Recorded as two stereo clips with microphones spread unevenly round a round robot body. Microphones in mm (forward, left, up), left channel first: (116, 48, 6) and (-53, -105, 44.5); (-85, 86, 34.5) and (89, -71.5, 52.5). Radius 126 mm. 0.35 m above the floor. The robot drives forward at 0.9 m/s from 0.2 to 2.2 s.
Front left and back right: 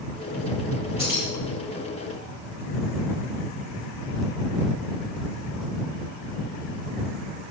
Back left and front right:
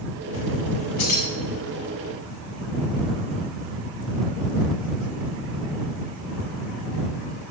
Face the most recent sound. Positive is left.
turn(degrees=150)